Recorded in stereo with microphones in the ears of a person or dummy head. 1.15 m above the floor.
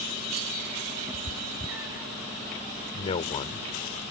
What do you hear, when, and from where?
1.1 s a cat meowing: 15° right (ahead or behind)
2.9 s a man speaking: 35° left (ahead or behind)